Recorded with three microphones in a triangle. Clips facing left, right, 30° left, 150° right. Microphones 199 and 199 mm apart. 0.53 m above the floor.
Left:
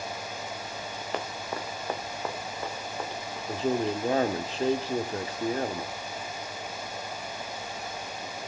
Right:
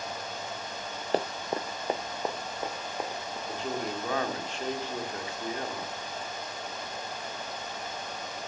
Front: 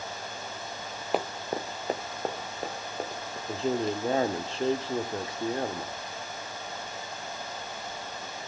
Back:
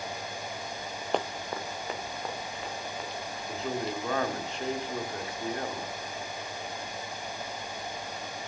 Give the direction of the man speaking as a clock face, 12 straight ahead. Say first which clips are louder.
Left 7 dB, front 5 dB; 10 o'clock.